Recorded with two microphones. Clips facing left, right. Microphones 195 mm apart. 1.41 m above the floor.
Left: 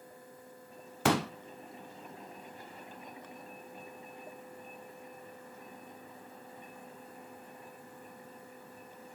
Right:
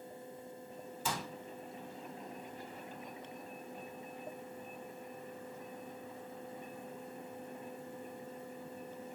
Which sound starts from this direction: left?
A pop, at 1.1 s.